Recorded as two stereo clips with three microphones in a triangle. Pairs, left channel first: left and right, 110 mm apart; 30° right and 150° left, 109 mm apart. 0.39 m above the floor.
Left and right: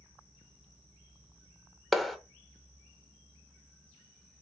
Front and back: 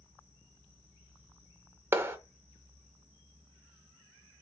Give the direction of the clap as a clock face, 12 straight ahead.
6 o'clock.